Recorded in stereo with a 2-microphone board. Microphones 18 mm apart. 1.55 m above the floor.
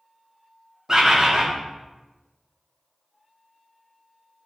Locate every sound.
0.9 s a bird: 30° right (ahead or behind), 0.8 m